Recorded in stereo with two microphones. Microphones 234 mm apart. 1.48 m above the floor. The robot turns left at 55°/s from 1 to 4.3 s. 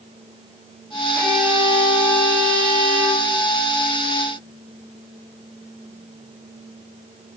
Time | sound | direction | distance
1.1 | a violin | 10° left | 5.5 m